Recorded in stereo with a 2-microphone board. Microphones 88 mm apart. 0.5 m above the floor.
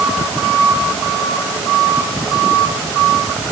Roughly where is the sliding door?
No sliding door in this recording.